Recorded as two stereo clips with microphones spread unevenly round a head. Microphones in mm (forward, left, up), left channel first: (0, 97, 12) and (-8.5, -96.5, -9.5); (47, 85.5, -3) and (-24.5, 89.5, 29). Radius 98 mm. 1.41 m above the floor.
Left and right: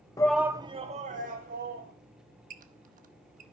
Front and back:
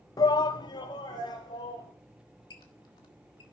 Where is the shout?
10° left, 0.7 m; by 1.9 s 50° right, 2.5 m.